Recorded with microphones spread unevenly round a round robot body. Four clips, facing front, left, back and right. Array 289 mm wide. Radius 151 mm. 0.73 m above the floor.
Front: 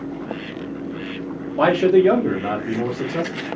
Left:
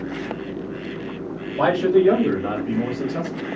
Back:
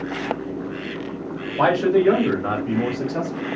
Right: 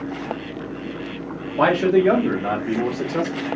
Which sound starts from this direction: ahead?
A man speaking, at 1.6 s.